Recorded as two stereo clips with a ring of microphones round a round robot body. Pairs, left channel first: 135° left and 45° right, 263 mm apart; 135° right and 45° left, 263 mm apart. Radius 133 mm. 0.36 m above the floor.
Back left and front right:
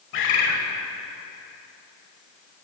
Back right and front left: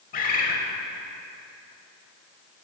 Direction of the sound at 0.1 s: 170° left.